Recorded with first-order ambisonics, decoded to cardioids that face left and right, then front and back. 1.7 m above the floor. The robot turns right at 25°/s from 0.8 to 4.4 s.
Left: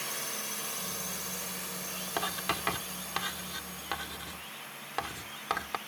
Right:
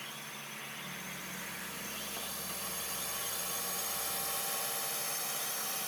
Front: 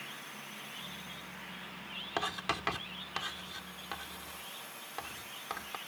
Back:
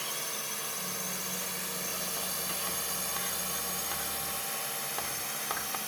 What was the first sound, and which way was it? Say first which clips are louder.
A drone: left 7 dB, back 8 dB; 145° left.